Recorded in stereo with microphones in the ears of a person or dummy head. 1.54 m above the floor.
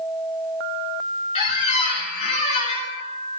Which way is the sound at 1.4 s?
35° left (ahead or behind).